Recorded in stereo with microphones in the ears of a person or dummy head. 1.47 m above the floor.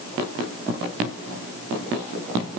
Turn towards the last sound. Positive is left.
No sound to turn to.